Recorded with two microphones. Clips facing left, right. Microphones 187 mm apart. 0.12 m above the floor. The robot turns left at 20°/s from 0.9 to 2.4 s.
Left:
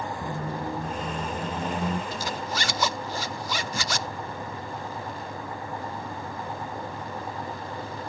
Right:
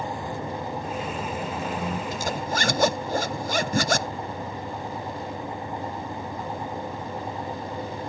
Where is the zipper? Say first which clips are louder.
Right 3 dB; 45° right (ahead or behind); by 4.1 s 50° right (ahead or behind).